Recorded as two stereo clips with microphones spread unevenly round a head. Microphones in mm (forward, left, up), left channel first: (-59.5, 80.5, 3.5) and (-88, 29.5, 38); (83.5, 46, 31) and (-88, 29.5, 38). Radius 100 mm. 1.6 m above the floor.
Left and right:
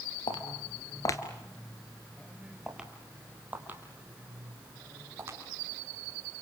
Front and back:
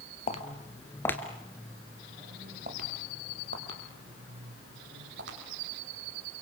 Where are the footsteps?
45° left, 1.9 m; by 5.4 s 140° right, 5 m.